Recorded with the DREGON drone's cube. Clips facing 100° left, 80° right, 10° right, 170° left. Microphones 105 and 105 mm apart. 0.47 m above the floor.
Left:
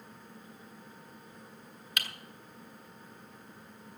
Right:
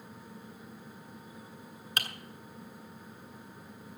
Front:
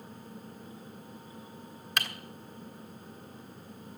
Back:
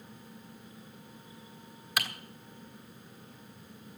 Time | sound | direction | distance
2.0 | typing on a keyboard | 105° right | 1.5 m